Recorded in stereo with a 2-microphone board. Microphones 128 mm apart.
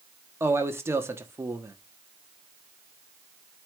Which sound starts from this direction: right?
A man speaking, at 0.4 s.